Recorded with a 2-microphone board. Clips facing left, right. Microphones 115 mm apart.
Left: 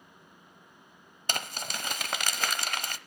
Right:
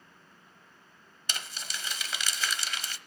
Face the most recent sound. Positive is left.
turn(degrees=55)  # may be behind; listen again after turning